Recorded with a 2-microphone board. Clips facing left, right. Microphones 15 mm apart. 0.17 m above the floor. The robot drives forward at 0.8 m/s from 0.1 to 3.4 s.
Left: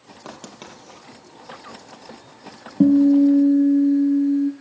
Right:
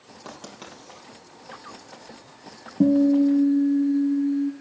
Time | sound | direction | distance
0.2 | writing | 15° left (ahead or behind) | 4 m
2.8 | a guitar | 35° left (ahead or behind) | 1.7 m